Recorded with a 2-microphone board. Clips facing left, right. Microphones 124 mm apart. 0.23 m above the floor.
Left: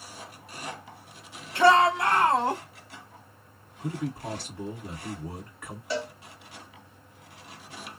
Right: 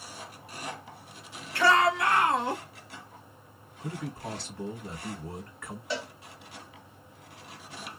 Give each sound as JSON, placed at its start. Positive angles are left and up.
{"t": 1.6, "sound": "a shout", "side_deg": 25, "distance_m": 1.2}
{"t": 3.8, "sound": "a man speaking", "side_deg": 15, "distance_m": 2.0}
{"t": 5.9, "sound": "a cowbell", "side_deg": 0, "distance_m": 1.8}